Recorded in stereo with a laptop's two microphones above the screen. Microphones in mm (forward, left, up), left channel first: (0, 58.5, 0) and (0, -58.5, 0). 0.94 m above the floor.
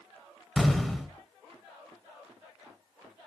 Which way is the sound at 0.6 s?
5° left (ahead or behind).